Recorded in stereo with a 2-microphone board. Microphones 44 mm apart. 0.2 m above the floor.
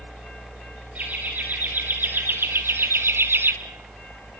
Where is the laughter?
35° right (ahead or behind), 3.5 m; by 3.5 s 50° right (ahead or behind), 1.9 m.